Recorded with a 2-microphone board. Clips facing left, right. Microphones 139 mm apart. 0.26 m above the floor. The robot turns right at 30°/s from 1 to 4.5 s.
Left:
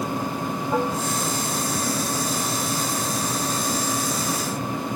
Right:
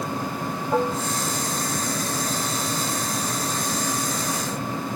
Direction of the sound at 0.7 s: 10° right (ahead or behind).